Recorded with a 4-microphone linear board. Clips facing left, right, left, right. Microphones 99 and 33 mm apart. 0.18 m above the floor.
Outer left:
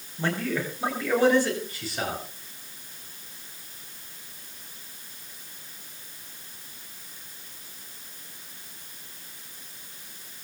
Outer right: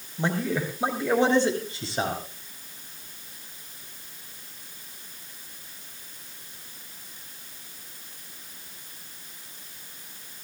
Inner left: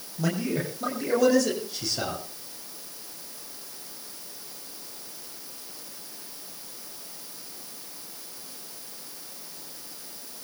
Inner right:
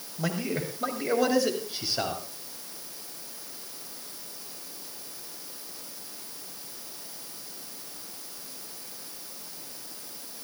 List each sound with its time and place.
0.2 s a man speaking: 20° right (ahead or behind), 8 m; by 2.2 s 30° right (ahead or behind), 9 m